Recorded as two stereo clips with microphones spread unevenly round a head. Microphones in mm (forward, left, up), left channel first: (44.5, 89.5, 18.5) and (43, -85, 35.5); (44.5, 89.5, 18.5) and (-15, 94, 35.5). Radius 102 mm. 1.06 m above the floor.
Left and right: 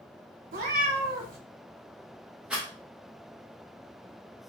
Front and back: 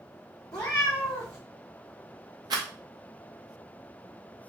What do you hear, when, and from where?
0.5 s a cat meowing: 70° right, 1.5 m
2.5 s a rattle: 175° right, 0.8 m